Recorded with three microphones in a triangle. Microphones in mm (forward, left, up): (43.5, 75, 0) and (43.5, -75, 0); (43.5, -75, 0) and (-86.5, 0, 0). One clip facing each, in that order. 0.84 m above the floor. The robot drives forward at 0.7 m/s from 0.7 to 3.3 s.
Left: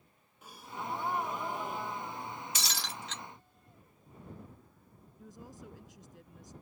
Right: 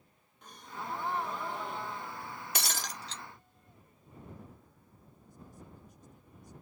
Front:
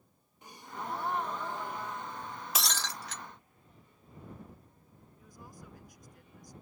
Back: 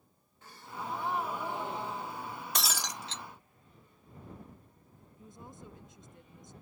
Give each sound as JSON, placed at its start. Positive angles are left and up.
{"t": 0.4, "sound": "a gasp", "azimuth_deg": 15}
{"t": 2.5, "sound": "breaking glass", "azimuth_deg": -115}
{"t": 5.2, "sound": "a woman speaking", "azimuth_deg": 85}